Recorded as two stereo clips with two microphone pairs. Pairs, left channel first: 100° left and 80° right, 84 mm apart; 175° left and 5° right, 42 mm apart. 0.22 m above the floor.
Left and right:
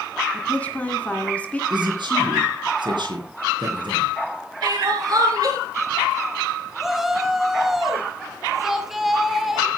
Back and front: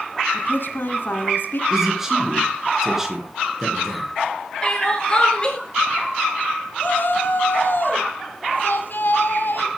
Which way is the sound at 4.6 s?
115° right.